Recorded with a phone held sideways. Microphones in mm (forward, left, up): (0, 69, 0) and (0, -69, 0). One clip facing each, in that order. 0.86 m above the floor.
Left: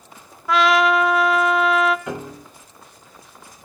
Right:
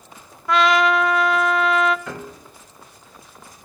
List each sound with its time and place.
0.5 s a trumpet: centre (ahead or behind), 0.7 m
2.1 s a piano: 20° left (ahead or behind), 1.3 m